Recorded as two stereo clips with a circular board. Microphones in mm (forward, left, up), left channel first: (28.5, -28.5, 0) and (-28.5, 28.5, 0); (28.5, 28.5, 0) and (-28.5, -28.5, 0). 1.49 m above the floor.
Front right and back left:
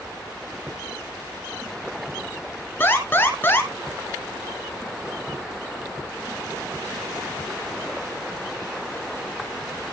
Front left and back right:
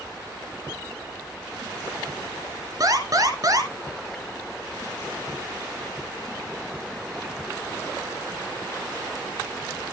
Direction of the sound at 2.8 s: 105° right.